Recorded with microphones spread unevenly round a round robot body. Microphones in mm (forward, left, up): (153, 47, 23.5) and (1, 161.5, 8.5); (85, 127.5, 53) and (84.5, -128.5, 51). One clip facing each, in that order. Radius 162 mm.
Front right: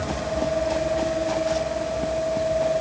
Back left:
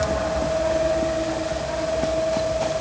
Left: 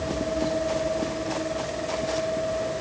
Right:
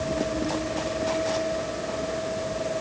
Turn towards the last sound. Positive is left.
No sound to turn to.